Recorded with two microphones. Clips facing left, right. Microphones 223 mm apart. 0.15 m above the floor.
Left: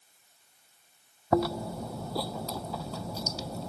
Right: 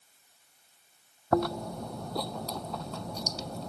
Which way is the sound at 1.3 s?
5° left (ahead or behind).